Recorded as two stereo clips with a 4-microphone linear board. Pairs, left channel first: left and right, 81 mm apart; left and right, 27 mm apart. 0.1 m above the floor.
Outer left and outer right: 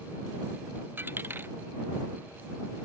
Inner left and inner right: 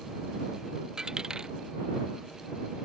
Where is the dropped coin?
25° right (ahead or behind).